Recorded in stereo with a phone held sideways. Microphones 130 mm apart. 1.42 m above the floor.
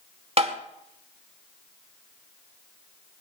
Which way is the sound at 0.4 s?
45° right (ahead or behind).